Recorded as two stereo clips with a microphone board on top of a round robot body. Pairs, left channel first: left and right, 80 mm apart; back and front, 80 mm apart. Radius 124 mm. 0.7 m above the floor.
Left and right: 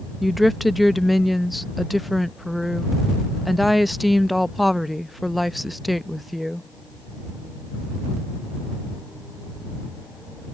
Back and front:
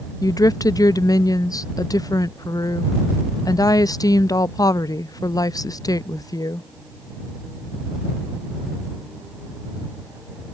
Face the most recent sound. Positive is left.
turn(degrees=180)